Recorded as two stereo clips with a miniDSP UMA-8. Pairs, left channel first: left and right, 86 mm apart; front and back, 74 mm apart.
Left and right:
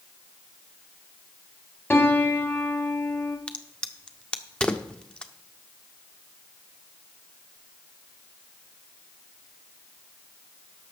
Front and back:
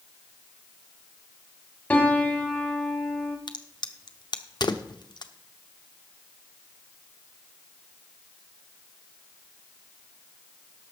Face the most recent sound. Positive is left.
turn(degrees=10)